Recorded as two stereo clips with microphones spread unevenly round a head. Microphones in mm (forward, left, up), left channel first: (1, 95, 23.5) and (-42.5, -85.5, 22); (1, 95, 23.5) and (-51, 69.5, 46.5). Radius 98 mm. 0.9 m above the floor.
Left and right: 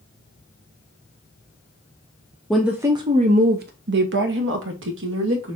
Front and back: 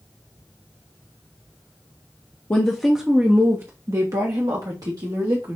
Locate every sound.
2.5 s a woman speaking: 10° right, 0.6 m; by 5.6 s 110° right, 1.8 m